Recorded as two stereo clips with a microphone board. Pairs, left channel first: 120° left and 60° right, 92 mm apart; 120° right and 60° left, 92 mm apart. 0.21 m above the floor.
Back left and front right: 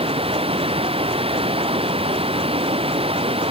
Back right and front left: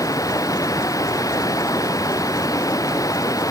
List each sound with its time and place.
0.0 s running water: 70° right